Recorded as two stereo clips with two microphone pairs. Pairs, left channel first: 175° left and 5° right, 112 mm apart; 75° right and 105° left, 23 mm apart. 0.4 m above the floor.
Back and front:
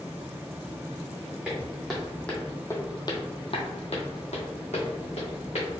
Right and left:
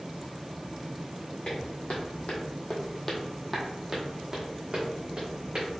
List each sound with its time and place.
1.4 s footsteps: 85° right, 1.4 m; by 5.7 s 155° left, 1.9 m